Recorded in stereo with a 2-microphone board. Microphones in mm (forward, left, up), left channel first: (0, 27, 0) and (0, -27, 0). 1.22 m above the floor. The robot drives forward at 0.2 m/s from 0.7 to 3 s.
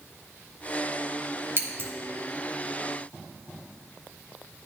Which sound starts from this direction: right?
Scissors, at 1.6 s.